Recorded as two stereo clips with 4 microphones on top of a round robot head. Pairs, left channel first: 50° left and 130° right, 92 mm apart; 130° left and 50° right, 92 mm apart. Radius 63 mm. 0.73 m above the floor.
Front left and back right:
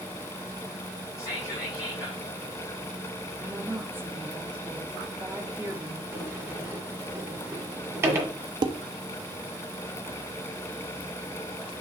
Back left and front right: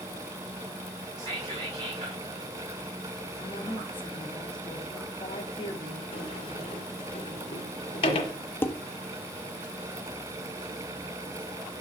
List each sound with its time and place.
1.2 s whispering: 5° right, 3 m
3.4 s a woman speaking: 165° left, 1.5 m
6.1 s a sliding door: 165° left, 1.6 m
8.6 s dishes clattering: 165° right, 0.6 m